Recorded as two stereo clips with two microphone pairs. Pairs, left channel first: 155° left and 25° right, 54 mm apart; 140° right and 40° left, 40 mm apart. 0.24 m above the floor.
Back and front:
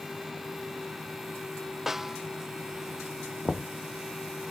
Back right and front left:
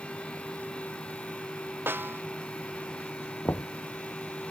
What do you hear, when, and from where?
1.9 s a snare drum: 60° left
3.5 s knocking: 115° right